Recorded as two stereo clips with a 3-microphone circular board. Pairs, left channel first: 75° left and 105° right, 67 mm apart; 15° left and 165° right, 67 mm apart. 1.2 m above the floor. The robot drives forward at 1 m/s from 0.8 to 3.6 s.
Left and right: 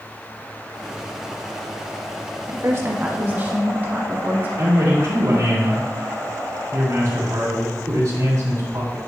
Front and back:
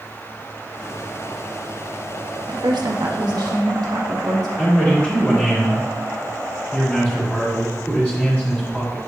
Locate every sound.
2.5 s a woman speaking: 150° right, 1.0 m; by 4.5 s 165° right, 2 m
4.6 s a man speaking: 65° right, 3 m